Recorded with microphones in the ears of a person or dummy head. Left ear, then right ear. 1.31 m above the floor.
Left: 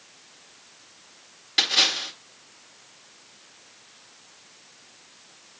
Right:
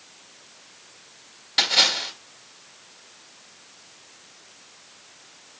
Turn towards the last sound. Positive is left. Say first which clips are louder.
# right 2 dB
turn(degrees=5)  # may be behind; listen again after turning